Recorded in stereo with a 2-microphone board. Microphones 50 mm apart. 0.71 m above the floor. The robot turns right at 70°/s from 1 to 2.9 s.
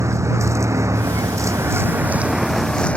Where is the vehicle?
110° right; by 3.0 s 25° left.